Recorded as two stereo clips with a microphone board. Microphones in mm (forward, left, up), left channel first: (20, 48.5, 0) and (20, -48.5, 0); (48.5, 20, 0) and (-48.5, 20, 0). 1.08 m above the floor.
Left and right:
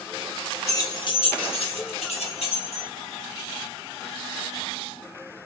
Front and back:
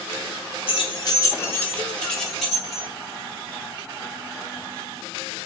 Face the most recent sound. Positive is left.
turn(degrees=95)